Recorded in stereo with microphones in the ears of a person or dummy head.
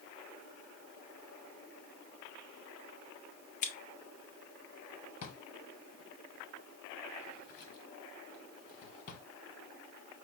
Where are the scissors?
40° left (ahead or behind), 0.6 m.